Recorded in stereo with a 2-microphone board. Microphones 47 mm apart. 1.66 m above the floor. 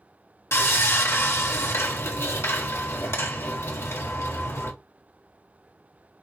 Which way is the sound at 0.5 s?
70° left (ahead or behind).